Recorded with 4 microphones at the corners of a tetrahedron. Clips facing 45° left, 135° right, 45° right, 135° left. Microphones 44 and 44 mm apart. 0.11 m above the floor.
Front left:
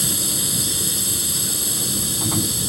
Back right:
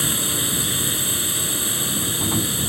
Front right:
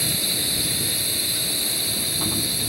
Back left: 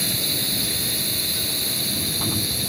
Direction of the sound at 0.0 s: 130° right.